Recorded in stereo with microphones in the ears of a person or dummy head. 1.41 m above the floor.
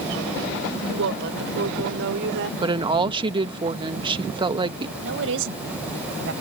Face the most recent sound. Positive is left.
turn(degrees=-75)  # may be behind; listen again after turning